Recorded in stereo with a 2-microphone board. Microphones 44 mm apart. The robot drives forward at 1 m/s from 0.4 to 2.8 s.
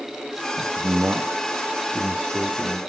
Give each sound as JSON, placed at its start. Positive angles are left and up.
{"t": 0.6, "sound": "a man speaking", "side_deg": -55, "distance_m": 1.4}